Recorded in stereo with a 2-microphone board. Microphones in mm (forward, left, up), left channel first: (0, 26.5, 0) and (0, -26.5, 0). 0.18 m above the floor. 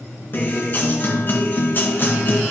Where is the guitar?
40° left (ahead or behind), 1.7 m.